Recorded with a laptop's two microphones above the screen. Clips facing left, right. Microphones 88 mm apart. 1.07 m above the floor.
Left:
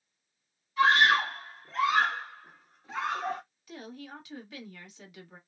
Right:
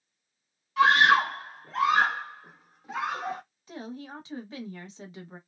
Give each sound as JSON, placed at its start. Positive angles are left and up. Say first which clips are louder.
{"t": 0.8, "sound": "a scream", "louder": "right 3 dB", "side_deg": -75, "distance_m": 0.8}
{"t": 3.7, "sound": "a woman speaking", "louder": "right 5 dB", "side_deg": -30, "distance_m": 0.9}